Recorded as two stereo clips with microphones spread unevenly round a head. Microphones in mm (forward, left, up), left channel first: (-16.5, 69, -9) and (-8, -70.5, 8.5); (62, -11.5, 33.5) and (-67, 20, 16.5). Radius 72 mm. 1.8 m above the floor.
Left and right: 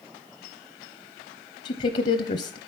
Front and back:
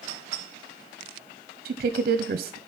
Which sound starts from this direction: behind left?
A woman speaking, at 1.6 s.